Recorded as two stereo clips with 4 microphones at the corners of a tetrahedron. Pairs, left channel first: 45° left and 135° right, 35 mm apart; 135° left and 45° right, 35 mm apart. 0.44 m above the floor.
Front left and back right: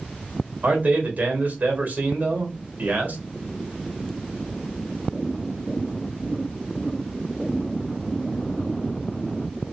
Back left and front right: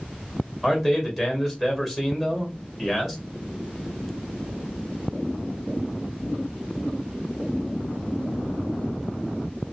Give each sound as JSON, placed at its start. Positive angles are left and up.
{"t": 0.6, "sound": "a man speaking", "azimuth_deg": -120, "distance_m": 2.0}